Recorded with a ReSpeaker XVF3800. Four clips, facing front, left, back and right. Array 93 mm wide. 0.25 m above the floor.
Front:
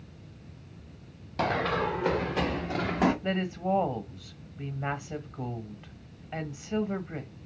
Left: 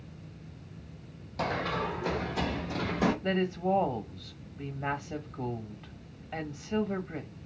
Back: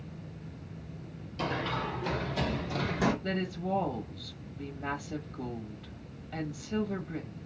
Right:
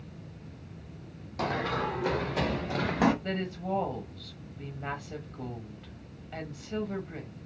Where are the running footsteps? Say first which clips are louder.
Right 1 dB, front 5 dB; 15° right, 1.6 m; by 3.1 s 55° right, 2.5 m.